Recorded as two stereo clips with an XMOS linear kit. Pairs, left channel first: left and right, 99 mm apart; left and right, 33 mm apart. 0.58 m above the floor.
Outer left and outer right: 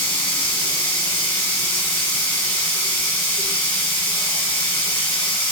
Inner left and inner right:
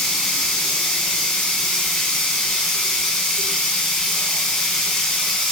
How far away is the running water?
About 1.1 m.